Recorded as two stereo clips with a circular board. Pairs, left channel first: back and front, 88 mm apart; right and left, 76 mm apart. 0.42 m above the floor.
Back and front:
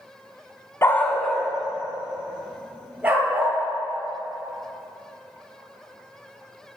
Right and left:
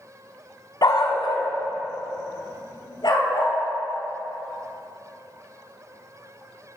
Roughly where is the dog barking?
Behind right.